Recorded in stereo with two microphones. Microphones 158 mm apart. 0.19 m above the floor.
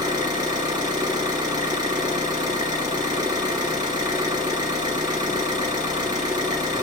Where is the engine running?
25° right (ahead or behind), 3 m.